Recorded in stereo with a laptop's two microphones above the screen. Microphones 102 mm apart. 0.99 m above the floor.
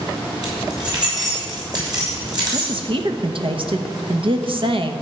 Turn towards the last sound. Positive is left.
turn(degrees=-60)  # may be behind; listen again after turning